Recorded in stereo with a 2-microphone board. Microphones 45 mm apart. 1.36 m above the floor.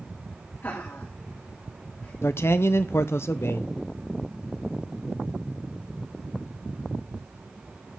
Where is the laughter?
50° left (ahead or behind), 2.5 m.